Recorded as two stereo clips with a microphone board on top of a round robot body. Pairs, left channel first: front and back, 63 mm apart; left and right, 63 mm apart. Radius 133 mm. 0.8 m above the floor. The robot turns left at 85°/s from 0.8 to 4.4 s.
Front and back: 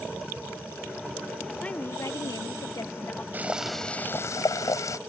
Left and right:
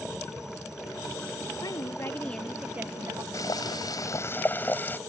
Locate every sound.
1.6 s a woman speaking: 75° left; by 3.2 s 65° right
3.3 s boiling: 120° left; by 5.0 s 30° left